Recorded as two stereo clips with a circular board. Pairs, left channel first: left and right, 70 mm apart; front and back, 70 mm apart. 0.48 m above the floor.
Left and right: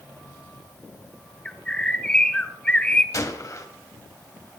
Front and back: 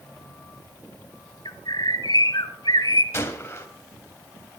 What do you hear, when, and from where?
1.4 s a bird: 15° left, 1.5 m
3.1 s a gunshot: 55° left, 2.5 m